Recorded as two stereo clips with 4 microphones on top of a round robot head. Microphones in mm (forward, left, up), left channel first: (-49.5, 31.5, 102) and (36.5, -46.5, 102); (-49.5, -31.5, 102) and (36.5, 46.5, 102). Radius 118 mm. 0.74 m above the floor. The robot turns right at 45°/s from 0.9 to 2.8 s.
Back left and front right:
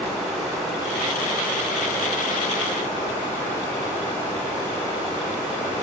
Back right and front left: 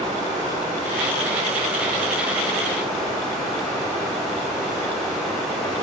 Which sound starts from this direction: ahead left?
Running water, at 0.0 s.